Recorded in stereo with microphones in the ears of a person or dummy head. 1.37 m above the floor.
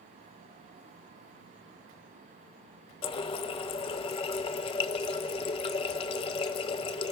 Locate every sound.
3.0 s a running tap: 25° left (ahead or behind), 0.5 m